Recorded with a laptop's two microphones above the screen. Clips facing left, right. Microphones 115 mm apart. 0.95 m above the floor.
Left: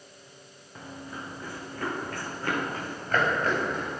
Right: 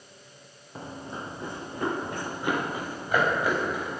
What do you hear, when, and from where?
0.8 s running footsteps: 30° right (ahead or behind), 3 m; by 4.0 s 5° right (ahead or behind), 4.5 m